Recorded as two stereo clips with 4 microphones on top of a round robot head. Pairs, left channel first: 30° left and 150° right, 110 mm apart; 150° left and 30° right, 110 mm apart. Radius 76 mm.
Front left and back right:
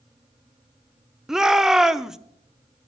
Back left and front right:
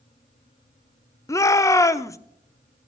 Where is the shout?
130° left, 0.8 m.